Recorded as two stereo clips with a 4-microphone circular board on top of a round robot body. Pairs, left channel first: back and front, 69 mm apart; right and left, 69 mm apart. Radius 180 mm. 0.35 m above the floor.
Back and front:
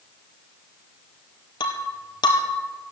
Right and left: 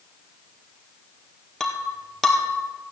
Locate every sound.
1.6 s breaking glass: 175° right, 1.6 m